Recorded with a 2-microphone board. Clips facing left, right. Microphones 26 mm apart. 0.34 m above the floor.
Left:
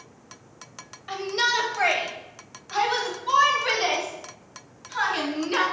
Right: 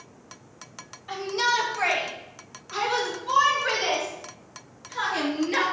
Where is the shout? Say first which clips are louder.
Left 1 dB; 35° left (ahead or behind), 1.6 m; by 5.6 s 50° left (ahead or behind), 4 m.